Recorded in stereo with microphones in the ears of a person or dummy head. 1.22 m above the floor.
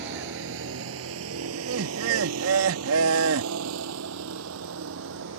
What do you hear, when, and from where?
0.0 s a vehicle: 60° right (ahead or behind); by 5.4 s 75° right (ahead or behind)
1.5 s laughter: 80° right